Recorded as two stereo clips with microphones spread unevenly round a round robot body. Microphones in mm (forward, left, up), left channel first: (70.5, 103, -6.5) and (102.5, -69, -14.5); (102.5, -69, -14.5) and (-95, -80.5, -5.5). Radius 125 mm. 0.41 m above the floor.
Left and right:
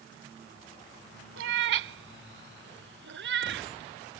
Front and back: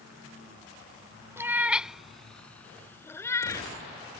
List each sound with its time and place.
1.4 s a cat meowing: 100° right; by 3.7 s 70° right